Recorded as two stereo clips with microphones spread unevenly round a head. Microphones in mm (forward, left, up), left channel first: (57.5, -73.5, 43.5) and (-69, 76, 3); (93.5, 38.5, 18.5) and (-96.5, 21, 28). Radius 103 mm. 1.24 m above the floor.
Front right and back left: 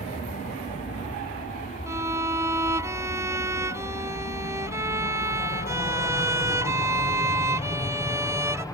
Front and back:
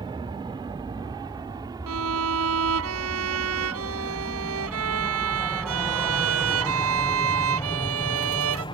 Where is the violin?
150° right.